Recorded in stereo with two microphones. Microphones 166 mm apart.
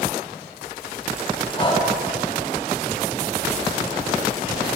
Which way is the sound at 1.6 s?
30° left (ahead or behind).